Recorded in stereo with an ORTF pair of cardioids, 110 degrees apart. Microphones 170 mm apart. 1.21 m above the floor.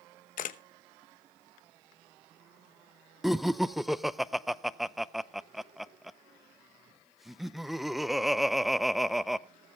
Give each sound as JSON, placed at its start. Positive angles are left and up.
{"t": 0.4, "sound": "a camera shutter", "azimuth_deg": 55, "distance_m": 0.9}
{"t": 3.2, "sound": "laughter", "azimuth_deg": 0, "distance_m": 0.5}